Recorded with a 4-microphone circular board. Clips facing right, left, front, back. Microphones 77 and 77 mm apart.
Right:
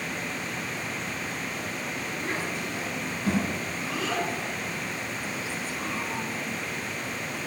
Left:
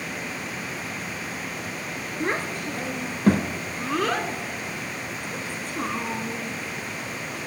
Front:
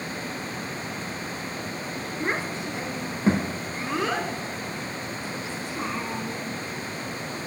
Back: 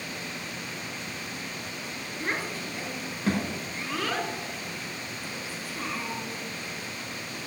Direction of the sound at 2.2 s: 65° left.